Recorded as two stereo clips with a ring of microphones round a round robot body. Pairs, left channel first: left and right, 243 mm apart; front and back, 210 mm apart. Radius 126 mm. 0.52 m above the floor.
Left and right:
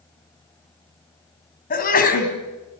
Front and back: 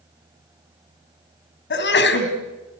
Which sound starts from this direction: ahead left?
A sneeze, at 1.7 s.